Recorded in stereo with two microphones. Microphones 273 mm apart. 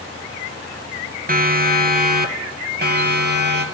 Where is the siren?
35° right (ahead or behind), 3 m; by 3.6 s 40° right (ahead or behind), 4 m.